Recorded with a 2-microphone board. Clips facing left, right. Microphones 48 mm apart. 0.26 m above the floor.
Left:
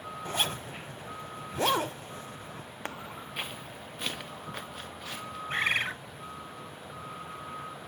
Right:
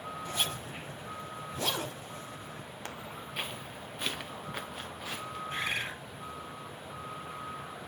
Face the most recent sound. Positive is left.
turn(degrees=55)  # may be behind; listen again after turning